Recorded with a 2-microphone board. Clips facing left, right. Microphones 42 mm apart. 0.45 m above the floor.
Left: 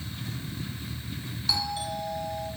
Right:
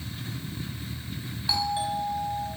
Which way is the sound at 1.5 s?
20° right (ahead or behind).